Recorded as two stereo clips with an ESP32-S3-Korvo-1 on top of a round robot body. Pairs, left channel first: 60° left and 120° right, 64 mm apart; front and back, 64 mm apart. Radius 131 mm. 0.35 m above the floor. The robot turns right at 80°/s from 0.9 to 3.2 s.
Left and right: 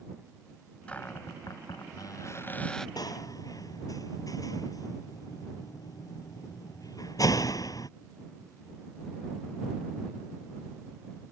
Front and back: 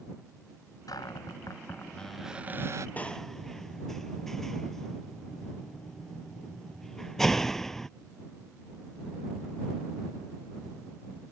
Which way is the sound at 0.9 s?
10° right.